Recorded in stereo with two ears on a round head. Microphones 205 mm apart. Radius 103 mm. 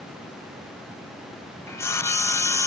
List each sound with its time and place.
1.7 s sawing: 10° left (ahead or behind), 0.6 m